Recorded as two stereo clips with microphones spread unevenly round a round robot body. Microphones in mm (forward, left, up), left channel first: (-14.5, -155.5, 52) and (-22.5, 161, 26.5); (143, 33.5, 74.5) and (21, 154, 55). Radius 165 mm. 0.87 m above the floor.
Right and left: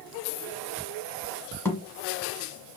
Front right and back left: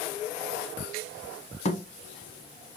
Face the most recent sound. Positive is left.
turn(degrees=-10)